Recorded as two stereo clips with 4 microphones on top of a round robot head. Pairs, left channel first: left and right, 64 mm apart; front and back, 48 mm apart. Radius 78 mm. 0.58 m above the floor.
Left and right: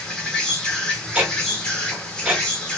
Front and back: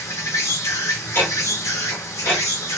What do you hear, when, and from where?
0.0 s an insect: 10° left, 0.9 m
1.1 s ticking: 25° right, 1.2 m